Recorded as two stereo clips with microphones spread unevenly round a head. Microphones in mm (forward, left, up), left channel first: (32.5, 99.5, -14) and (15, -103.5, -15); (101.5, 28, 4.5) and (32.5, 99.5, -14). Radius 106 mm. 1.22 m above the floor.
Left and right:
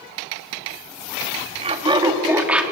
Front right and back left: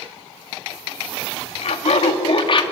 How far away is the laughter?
About 2.5 m.